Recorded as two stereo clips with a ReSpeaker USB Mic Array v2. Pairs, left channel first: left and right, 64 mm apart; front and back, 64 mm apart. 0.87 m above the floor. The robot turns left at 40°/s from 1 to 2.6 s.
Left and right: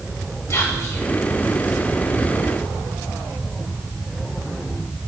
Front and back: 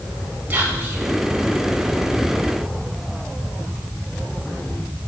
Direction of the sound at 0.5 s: 120° left.